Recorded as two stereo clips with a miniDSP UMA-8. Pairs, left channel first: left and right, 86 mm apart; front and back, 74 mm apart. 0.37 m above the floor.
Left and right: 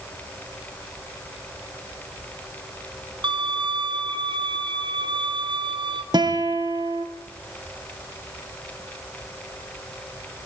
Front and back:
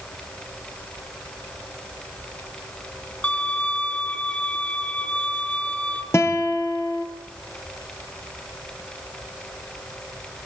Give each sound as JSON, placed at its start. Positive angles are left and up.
{"t": 3.2, "sound": "a violin", "azimuth_deg": -70, "distance_m": 5.0}
{"t": 6.1, "sound": "a guitar", "azimuth_deg": -55, "distance_m": 4.5}